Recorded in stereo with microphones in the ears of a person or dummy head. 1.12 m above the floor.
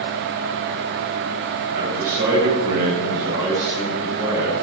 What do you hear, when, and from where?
1.8 s a man speaking: 45° right (ahead or behind), 6.5 m; by 4.5 s 10° right (ahead or behind), 6.5 m